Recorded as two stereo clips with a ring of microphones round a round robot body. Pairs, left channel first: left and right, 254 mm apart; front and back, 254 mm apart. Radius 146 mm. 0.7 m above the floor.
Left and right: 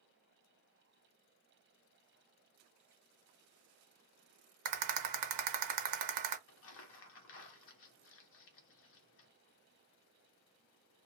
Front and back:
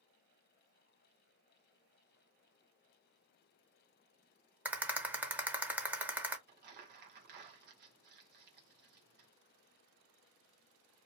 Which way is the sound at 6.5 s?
130° left.